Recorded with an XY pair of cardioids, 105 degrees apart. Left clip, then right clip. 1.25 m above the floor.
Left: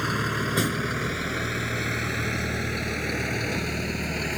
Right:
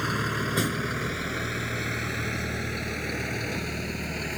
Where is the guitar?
I don't hear a guitar.